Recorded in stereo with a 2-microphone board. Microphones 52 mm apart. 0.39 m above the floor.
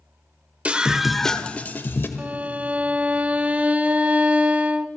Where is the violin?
25° right (ahead or behind), 0.5 m.